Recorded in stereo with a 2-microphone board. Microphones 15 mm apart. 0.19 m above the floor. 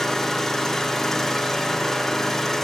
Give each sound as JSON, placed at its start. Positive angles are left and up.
{"t": 0.0, "sound": "an engine running", "side_deg": 25, "distance_m": 6.0}